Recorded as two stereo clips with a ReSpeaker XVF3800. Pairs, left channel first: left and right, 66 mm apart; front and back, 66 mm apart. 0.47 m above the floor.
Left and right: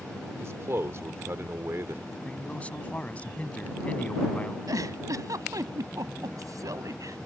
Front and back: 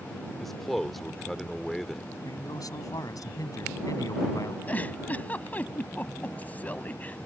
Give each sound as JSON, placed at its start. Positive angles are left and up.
{"t": 0.4, "sound": "a man speaking", "azimuth_deg": -85}
{"t": 2.2, "sound": "a man speaking", "azimuth_deg": 25}
{"t": 4.7, "sound": "a giggle", "azimuth_deg": -65}